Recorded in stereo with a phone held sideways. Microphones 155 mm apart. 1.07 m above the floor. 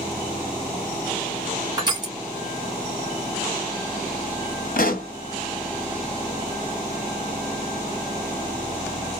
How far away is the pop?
About 0.8 m.